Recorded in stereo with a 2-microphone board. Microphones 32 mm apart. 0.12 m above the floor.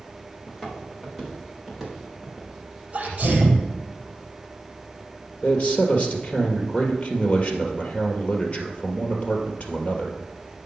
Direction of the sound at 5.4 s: 45° left (ahead or behind).